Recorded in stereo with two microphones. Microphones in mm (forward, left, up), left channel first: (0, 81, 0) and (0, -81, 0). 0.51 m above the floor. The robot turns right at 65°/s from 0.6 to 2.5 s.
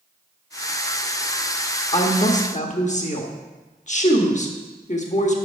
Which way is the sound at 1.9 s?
60° left.